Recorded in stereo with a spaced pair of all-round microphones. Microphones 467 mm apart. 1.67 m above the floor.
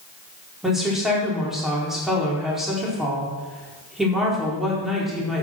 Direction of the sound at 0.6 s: Centre (ahead or behind).